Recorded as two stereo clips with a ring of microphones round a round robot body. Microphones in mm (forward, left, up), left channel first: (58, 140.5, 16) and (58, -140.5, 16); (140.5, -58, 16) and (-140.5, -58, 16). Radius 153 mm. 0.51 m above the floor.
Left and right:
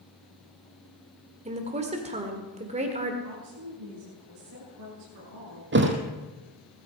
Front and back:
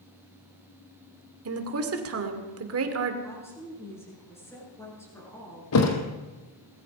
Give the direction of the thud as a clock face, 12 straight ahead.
1 o'clock.